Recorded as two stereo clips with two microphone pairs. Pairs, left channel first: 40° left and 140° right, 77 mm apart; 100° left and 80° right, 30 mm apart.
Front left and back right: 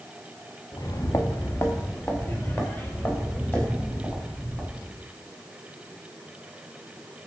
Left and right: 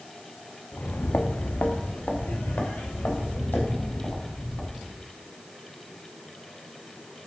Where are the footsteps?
75° left, 1.2 m; by 5.0 s 115° left, 6 m.